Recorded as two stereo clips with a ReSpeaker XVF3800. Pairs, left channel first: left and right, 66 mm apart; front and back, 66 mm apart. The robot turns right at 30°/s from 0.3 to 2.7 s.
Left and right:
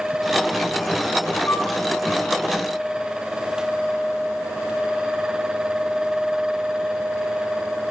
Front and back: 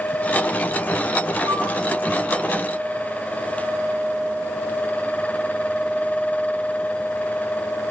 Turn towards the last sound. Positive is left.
turn(degrees=-170)